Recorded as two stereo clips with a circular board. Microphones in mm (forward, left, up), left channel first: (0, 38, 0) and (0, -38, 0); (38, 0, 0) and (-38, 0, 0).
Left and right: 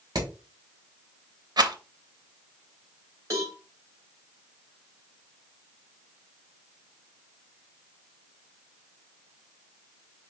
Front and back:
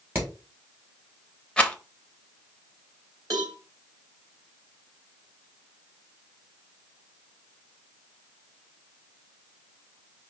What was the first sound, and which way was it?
Hammering, 120° right.